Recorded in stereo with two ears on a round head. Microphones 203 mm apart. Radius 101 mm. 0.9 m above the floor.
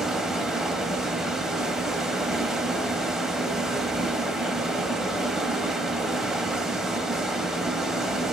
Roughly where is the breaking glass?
No breaking glass in this recording.